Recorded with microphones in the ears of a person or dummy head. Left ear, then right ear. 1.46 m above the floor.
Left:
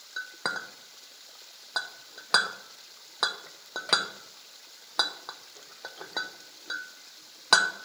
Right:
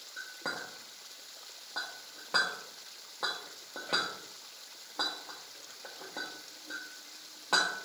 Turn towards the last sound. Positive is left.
turn(degrees=60)  # may be behind; listen again after turning